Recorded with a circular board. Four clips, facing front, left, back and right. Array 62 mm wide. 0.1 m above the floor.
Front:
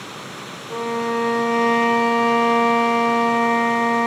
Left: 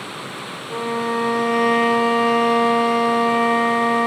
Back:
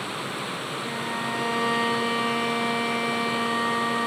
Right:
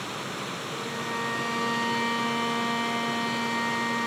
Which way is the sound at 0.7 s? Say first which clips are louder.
Left 13 dB, front 12 dB; 50° left.